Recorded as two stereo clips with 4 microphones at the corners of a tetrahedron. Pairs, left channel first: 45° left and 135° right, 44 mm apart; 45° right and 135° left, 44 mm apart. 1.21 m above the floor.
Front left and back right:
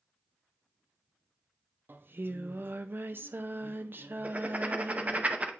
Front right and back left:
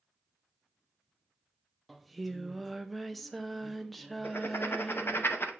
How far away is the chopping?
No chopping in this recording.